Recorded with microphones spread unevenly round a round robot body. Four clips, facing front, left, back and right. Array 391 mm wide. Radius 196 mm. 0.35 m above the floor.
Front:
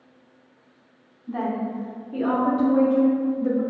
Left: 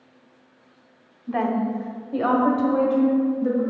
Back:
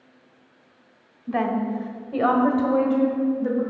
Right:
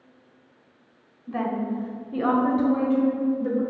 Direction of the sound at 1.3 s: 170° left.